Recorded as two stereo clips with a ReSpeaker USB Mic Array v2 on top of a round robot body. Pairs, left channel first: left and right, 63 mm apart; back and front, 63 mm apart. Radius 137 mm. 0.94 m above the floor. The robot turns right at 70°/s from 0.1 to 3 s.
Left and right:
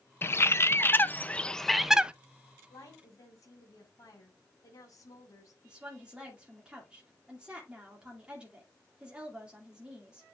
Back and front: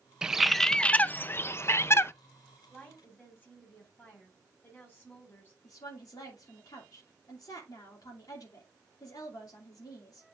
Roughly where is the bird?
Left.